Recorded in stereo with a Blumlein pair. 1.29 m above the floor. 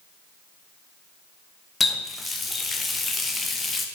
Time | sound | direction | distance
1.8 | a running tap | 10° left | 0.8 m